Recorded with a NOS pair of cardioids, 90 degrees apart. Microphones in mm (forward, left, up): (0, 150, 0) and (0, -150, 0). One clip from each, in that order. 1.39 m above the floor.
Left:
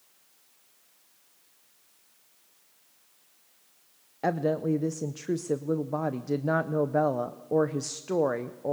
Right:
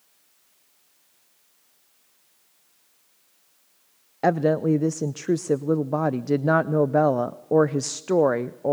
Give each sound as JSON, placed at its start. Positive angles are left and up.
{"t": 4.2, "sound": "a woman speaking", "azimuth_deg": -25, "distance_m": 0.5}